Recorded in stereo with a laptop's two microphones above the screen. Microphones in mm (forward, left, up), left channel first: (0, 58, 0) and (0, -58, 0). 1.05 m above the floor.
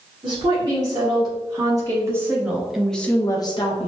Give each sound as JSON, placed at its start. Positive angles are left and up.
{"t": 0.2, "sound": "a woman speaking", "side_deg": -40, "distance_m": 1.9}